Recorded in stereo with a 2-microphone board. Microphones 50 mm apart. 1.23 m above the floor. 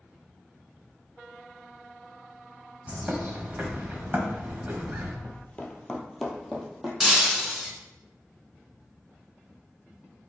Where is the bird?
35° right (ahead or behind), 1.2 m.